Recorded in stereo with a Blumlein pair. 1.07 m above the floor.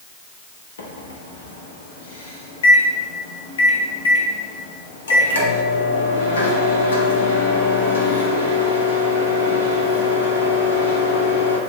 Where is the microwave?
65° left, 0.6 m.